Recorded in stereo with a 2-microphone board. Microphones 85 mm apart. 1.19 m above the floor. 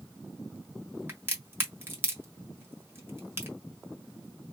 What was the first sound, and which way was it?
A crack, 25° right (ahead or behind).